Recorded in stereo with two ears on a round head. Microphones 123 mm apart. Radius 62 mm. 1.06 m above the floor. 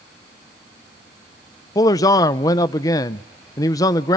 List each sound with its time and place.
1.8 s a man speaking: 25° left (ahead or behind), 0.6 m